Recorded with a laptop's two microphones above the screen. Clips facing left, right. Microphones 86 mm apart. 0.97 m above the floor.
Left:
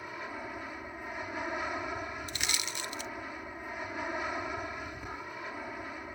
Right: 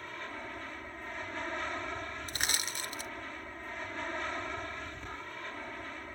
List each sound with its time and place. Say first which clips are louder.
0.0 s an aircraft: left 2 dB; 10° left (ahead or behind)
2.3 s crushing: even; 35° right (ahead or behind)